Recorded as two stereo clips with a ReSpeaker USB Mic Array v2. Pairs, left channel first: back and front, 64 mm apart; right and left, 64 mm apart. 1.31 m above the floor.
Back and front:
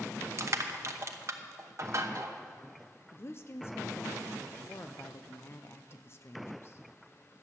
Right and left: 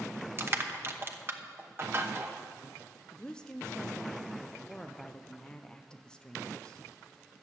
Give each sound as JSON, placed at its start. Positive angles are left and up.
{"t": 0.4, "sound": "crushing", "azimuth_deg": 40, "distance_m": 0.9}
{"t": 3.1, "sound": "a woman speaking", "azimuth_deg": -160, "distance_m": 0.6}